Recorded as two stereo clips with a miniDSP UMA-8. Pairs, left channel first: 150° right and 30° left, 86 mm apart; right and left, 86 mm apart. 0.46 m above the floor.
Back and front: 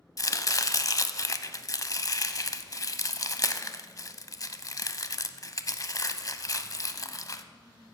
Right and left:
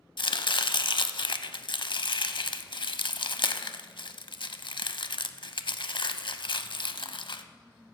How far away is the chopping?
About 0.5 m.